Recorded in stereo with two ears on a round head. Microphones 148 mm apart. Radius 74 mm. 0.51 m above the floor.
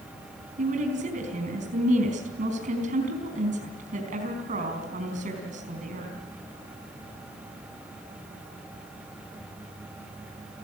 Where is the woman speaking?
45° right (ahead or behind), 4 m.